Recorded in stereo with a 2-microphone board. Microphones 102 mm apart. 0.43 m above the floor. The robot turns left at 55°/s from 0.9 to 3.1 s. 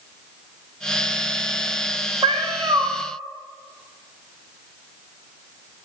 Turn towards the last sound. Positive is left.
turn(degrees=-160)